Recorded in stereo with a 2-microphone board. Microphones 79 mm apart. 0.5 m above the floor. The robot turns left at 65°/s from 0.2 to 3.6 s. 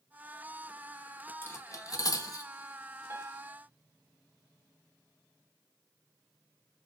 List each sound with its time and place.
1.4 s cutlery clinking: 30° left (ahead or behind), 0.7 m; by 2.5 s 45° left (ahead or behind), 0.7 m
3.1 s a piano: 35° right (ahead or behind), 0.7 m; by 3.5 s 20° right (ahead or behind), 0.7 m